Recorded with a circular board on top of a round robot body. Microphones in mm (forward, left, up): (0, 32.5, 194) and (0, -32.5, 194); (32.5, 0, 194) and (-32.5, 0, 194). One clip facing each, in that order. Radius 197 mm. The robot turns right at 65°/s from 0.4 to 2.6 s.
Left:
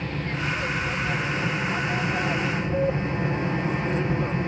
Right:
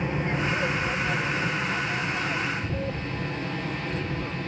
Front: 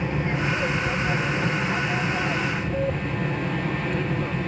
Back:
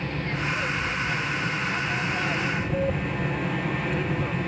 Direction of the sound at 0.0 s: 50° right.